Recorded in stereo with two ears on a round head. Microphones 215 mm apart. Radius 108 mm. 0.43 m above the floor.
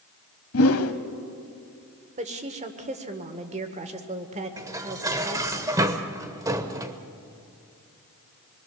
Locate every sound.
0.5 s a whoosh: 65° left (ahead or behind), 1.1 m
2.2 s a woman speaking: 30° right (ahead or behind), 1.6 m
4.6 s dishes clattering: 15° right (ahead or behind), 1.0 m